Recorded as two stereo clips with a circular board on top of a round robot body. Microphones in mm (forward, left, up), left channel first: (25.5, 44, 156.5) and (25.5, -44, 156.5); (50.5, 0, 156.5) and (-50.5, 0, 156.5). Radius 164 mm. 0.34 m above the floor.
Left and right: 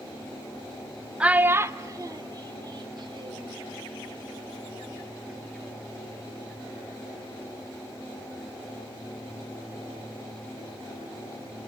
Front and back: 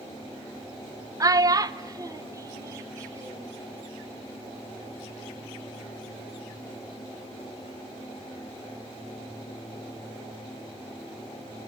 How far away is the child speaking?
About 0.7 m.